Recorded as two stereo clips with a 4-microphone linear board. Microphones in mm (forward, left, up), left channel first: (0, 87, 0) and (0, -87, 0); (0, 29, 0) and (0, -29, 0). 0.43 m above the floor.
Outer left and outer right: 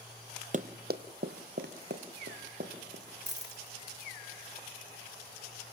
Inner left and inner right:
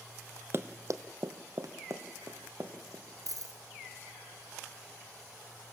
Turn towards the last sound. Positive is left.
turn(degrees=-80)